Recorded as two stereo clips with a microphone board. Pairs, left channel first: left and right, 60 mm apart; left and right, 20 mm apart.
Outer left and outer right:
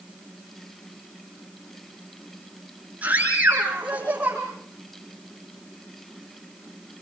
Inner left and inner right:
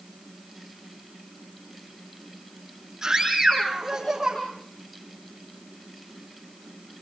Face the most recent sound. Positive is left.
turn(degrees=-25)  # may be behind; listen again after turning